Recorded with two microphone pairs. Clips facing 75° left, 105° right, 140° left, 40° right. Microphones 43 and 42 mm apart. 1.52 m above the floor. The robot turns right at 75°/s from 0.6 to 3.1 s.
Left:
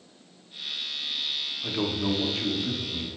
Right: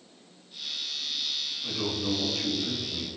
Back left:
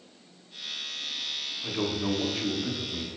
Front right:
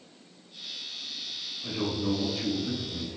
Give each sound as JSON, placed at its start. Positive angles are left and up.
{"t": 1.6, "sound": "a man speaking", "azimuth_deg": 75, "distance_m": 0.7}